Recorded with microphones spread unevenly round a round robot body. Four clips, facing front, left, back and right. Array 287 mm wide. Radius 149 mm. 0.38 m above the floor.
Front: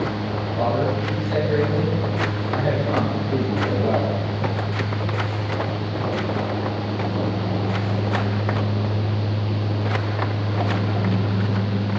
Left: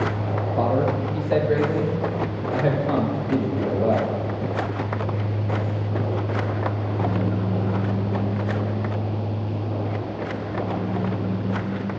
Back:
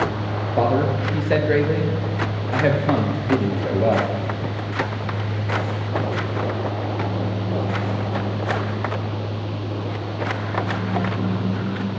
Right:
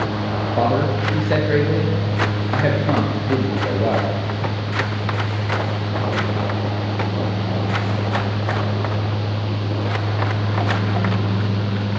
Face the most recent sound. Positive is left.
turn(degrees=-135)